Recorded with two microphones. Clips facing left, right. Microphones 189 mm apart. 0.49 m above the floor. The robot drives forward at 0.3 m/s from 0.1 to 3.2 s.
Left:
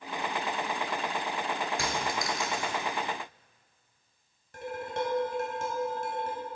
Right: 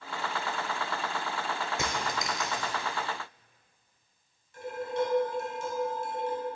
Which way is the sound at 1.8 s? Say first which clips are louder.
Left 1 dB; 25° right (ahead or behind).